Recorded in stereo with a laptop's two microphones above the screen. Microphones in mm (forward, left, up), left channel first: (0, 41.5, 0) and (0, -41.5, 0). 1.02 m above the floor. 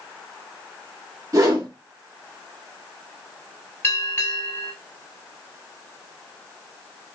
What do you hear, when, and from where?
1.3 s a whoosh: 40° right (ahead or behind), 0.9 m
3.8 s a bell: 30° left (ahead or behind), 1.8 m